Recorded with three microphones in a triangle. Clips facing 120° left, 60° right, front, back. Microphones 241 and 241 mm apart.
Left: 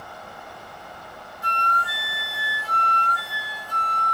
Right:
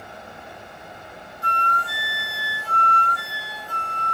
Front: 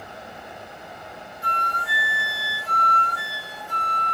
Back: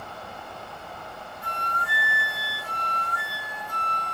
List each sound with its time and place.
1.4 s a flute: 20° right, 1.1 m